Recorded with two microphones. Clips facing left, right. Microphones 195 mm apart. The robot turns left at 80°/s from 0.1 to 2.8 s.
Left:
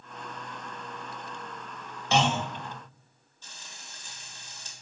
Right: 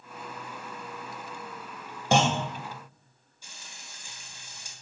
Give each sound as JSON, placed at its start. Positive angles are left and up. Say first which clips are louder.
{"t": 2.1, "sound": "a clunk", "louder": "right 2 dB", "side_deg": -50, "distance_m": 0.9}
{"t": 3.4, "sound": "frying", "louder": "even", "side_deg": -10, "distance_m": 1.6}